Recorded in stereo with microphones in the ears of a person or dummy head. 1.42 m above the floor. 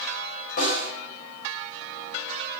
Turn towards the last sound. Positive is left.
turn(degrees=45)  # may be behind; listen again after turning